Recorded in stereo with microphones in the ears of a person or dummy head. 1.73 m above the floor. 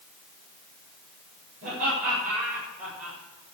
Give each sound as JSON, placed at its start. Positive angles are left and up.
{"t": 1.6, "sound": "laughter", "side_deg": -50, "distance_m": 8.0}